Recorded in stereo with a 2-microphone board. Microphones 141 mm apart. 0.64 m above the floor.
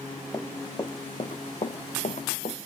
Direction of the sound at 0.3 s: 20° left (ahead or behind).